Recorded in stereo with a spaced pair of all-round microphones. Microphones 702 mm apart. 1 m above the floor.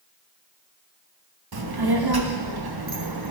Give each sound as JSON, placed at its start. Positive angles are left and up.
{"t": 1.5, "sound": "a child speaking", "side_deg": -35, "distance_m": 0.8}